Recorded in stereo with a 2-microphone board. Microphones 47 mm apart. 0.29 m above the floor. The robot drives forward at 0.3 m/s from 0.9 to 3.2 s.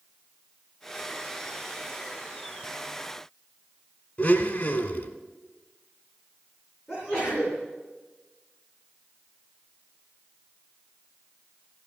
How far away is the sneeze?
About 3.5 m.